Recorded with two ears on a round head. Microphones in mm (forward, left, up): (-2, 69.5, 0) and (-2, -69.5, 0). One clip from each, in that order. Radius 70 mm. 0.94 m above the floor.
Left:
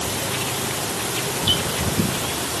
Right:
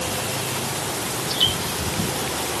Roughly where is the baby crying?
I don't hear a baby crying.